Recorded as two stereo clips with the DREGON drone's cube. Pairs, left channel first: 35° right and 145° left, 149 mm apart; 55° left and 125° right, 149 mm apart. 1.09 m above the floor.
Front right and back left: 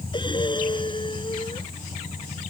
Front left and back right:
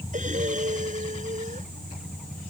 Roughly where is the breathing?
Right.